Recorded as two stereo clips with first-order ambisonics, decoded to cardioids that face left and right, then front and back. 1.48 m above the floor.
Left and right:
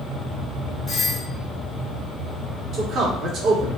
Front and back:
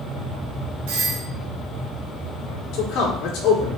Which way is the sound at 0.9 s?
175° left.